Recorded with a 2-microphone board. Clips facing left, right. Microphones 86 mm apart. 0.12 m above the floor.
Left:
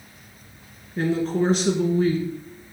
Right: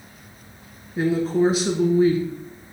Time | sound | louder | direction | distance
1.0 | a woman speaking | right 3 dB | 5° right (ahead or behind) | 1.1 m